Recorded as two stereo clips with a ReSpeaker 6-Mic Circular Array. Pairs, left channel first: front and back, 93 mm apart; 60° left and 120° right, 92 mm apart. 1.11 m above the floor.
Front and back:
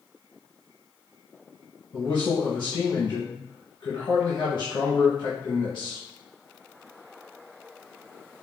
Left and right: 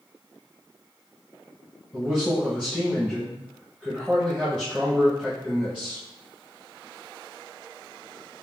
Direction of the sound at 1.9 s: 35° right.